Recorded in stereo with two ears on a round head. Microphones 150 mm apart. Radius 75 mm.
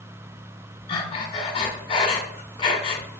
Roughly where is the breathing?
Left.